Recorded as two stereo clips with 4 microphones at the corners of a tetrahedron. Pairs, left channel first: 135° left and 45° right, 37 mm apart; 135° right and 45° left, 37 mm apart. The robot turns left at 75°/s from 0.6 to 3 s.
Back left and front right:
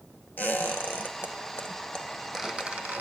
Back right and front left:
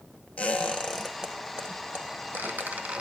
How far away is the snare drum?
No snare drum in this recording.